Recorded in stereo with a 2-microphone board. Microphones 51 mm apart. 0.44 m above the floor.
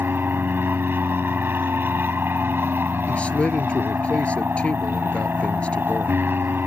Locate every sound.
0.0 s an aircraft: 45° right (ahead or behind)
3.1 s a man speaking: 25° left (ahead or behind)